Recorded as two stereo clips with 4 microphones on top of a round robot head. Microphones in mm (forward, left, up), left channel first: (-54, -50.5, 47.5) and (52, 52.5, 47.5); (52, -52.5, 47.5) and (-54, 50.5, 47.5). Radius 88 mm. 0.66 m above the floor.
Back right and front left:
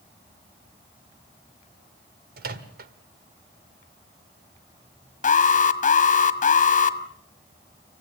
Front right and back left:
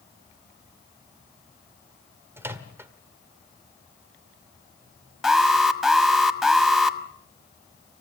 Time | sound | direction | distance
2.4 | a microwave | 60° left | 1.7 m
5.2 | an alarm | 135° right | 1.5 m